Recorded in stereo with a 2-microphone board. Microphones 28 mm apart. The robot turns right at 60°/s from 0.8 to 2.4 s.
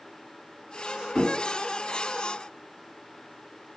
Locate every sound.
1.1 s a thud: 10° right (ahead or behind), 1.9 m; by 1.3 s 20° right (ahead or behind), 1.9 m